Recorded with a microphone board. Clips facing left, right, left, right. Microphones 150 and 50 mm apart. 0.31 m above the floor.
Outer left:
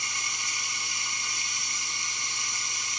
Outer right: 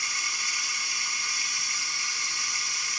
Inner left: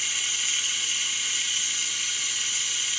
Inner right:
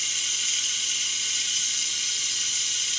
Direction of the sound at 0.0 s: 20° left (ahead or behind).